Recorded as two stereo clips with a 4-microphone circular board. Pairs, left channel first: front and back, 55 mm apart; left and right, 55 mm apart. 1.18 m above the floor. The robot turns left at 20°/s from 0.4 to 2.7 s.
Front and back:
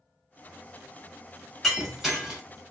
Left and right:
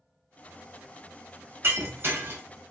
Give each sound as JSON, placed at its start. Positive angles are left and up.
{"t": 1.6, "sound": "breaking glass", "azimuth_deg": -90, "distance_m": 0.8}